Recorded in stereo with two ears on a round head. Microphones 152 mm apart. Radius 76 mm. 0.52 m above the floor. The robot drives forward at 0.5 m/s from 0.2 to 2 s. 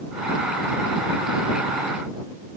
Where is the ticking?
No ticking in this recording.